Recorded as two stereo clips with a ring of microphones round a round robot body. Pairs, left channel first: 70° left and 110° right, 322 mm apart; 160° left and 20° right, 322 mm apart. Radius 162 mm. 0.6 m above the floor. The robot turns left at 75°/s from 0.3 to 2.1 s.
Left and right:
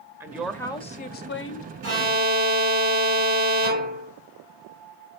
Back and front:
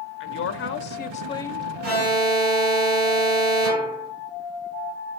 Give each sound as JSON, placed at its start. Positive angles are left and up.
{"t": 0.2, "sound": "a woman speaking", "azimuth_deg": 170, "distance_m": 1.2}
{"t": 1.8, "sound": "an alarm", "azimuth_deg": -80, "distance_m": 7.5}